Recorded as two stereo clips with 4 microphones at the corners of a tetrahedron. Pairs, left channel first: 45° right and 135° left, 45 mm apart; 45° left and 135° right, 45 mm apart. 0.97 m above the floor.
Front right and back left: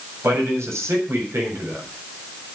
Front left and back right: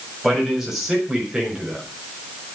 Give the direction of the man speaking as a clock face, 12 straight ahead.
7 o'clock.